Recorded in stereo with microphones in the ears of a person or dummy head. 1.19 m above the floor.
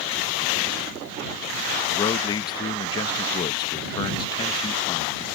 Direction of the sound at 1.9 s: 25° left (ahead or behind).